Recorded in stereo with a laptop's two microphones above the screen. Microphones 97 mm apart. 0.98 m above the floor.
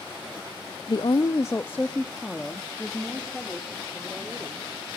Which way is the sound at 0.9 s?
55° left (ahead or behind).